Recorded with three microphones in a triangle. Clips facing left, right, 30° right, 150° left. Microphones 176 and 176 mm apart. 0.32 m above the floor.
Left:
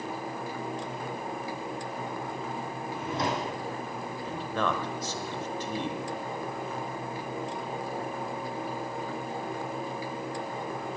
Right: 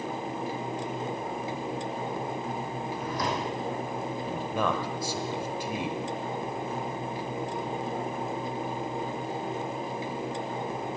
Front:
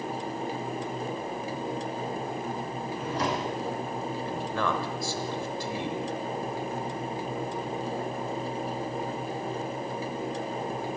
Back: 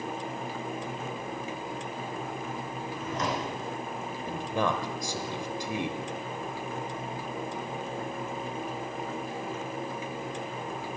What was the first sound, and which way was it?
A drawer, 25° left.